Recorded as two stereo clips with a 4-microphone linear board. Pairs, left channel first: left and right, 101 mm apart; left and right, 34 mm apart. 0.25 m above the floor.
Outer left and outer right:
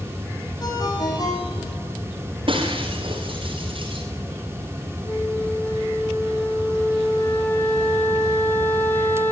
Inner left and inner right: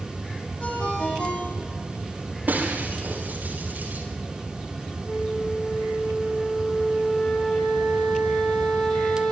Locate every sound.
0.6 s a ringtone: 40° left (ahead or behind), 9.5 m
2.5 s breaking glass: 55° right (ahead or behind), 7.5 m
5.1 s a flute: 20° left (ahead or behind), 3 m